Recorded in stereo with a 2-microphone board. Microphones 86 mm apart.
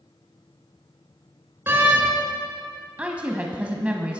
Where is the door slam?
25° right (ahead or behind), 2 m.